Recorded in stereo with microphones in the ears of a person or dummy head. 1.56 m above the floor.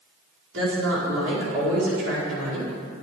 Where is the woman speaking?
80° right, 5 m.